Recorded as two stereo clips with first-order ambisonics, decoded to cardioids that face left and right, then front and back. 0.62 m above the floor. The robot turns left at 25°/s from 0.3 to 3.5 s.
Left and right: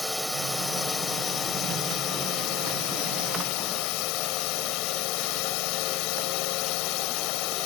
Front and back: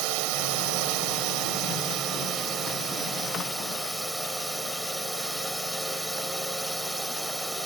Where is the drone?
175° left; by 7.7 s 95° left.